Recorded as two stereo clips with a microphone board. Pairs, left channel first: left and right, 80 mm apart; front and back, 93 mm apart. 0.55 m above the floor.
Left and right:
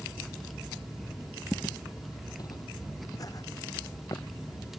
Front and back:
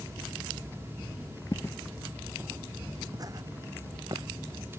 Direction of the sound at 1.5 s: 25° left.